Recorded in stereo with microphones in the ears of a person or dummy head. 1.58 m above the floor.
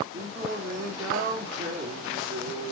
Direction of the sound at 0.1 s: 20° right (ahead or behind).